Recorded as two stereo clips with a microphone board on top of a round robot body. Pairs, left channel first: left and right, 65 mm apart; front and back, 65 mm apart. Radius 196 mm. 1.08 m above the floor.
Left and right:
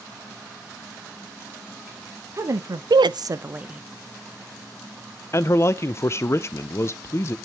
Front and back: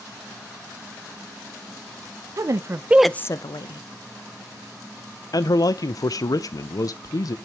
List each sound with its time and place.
2.4 s a woman speaking: 140° right, 1.3 m; by 3.8 s 10° right, 1.1 m
5.3 s a man speaking: 35° left, 0.5 m